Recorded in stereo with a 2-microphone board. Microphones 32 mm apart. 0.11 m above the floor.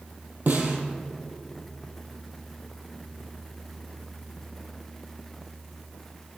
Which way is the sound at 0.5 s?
65° right (ahead or behind).